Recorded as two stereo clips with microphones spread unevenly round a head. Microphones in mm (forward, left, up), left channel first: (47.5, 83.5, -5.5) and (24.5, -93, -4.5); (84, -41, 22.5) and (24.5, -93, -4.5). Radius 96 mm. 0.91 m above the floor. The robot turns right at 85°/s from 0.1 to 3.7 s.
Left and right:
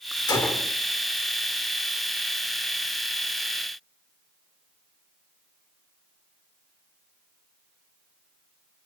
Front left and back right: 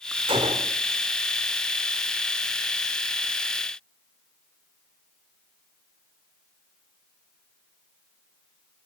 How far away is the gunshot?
About 1.2 m.